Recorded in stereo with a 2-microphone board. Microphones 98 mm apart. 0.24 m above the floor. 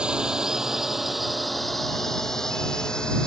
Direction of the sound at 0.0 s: 10° right (ahead or behind).